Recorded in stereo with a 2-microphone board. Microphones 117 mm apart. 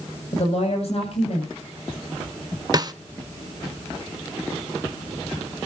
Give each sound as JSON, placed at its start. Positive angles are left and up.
{"t": 0.3, "sound": "a woman speaking", "side_deg": 60, "distance_m": 6.5}
{"t": 2.7, "sound": "a snare drum", "side_deg": -35, "distance_m": 0.7}